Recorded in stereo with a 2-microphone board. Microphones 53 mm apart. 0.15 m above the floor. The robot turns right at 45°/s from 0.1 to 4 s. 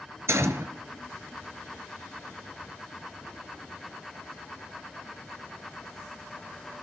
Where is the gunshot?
60° right (ahead or behind), 1.0 m; by 0.7 s 55° right (ahead or behind), 1.0 m.